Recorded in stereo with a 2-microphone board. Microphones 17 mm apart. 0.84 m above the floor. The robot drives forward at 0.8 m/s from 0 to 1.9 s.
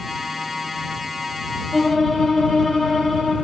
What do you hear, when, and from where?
1.7 s a violin: 25° left (ahead or behind), 1.1 m